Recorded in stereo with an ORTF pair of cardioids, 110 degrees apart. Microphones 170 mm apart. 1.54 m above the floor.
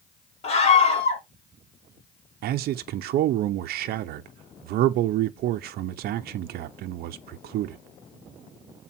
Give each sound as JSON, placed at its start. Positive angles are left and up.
{"t": 0.4, "sound": "a scream", "azimuth_deg": 40, "distance_m": 3.5}
{"t": 2.4, "sound": "a man speaking", "azimuth_deg": -65, "distance_m": 0.7}